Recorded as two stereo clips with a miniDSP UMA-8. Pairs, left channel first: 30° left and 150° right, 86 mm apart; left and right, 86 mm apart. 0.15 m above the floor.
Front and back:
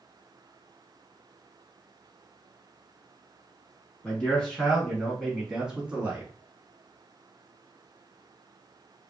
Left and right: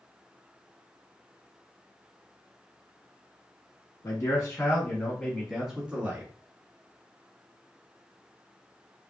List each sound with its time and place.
4.0 s a man speaking: 105° left, 1.5 m; by 6.3 s 110° right, 1.1 m